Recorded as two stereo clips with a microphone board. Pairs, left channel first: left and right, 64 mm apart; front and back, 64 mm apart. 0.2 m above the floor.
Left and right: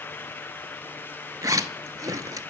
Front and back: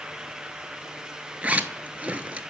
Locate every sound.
1.4 s a zipper: 115° right, 0.5 m